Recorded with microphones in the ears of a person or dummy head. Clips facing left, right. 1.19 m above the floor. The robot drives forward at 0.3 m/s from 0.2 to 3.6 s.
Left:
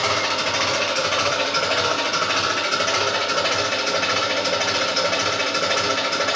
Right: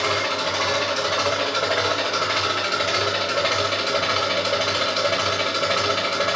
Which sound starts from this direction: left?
An engine running, at 0.0 s.